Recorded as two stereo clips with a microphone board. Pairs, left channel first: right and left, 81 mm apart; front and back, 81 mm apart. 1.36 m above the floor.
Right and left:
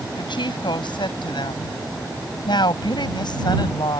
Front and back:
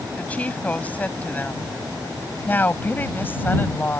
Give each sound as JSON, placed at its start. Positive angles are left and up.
{"t": 0.2, "sound": "a woman speaking", "azimuth_deg": -70}